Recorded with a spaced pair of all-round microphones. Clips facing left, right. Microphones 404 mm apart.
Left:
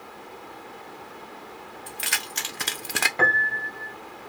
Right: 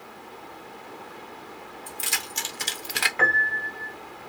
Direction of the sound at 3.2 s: 55° left (ahead or behind).